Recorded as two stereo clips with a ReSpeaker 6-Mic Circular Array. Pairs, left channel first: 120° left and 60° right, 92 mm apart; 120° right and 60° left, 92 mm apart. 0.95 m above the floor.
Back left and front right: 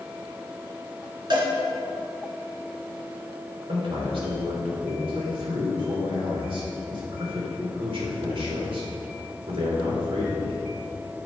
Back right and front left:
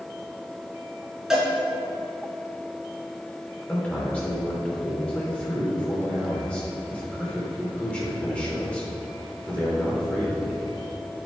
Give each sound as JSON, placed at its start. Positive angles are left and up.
{"t": 1.3, "sound": "a cowbell", "azimuth_deg": -25, "distance_m": 2.5}
{"t": 3.7, "sound": "a man speaking", "azimuth_deg": -45, "distance_m": 3.0}